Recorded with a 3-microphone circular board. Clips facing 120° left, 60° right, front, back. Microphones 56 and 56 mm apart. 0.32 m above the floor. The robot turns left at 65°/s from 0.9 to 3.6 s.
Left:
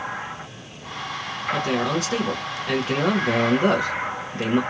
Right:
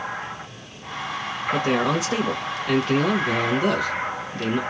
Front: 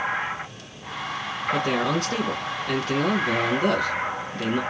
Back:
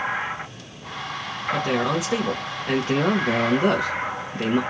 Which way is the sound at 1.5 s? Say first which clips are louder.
Right 2 dB, back 1 dB; 85° right.